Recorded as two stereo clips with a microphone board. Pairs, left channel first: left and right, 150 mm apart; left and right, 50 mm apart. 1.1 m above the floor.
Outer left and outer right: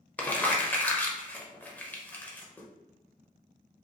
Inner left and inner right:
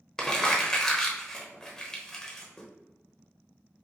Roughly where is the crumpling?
Centre.